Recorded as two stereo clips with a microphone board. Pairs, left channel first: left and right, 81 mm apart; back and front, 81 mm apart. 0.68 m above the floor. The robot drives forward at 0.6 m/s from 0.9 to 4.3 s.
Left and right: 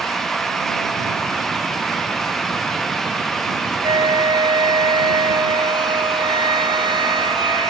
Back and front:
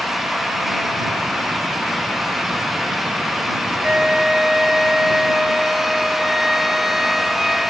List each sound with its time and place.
3.8 s a flute: 75° right; by 7.7 s 85° right